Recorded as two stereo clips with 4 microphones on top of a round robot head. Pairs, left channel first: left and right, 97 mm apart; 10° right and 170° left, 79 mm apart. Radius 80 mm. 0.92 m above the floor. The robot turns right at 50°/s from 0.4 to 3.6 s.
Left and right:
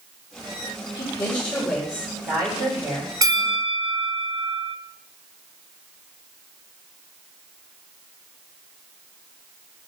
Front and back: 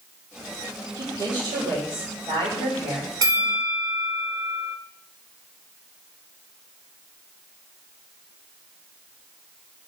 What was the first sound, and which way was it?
A woman speaking, 140° left.